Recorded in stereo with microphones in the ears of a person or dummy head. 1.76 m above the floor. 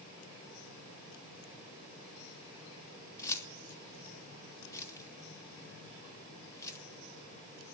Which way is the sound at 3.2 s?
10° left (ahead or behind).